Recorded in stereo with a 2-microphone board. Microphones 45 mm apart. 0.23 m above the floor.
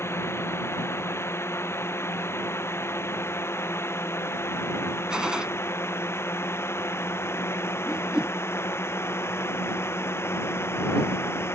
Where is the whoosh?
20° right (ahead or behind).